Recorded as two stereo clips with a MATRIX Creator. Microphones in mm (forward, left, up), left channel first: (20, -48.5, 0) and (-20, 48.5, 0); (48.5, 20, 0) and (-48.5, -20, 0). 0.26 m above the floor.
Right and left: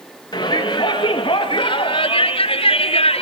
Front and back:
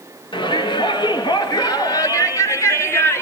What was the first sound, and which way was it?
A shout, 15° right.